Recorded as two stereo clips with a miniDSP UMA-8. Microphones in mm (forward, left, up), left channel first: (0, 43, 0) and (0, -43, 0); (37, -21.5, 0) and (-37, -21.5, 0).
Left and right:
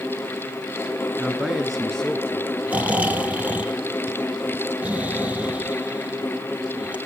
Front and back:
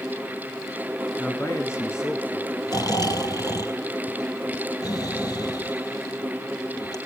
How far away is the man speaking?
About 1.6 m.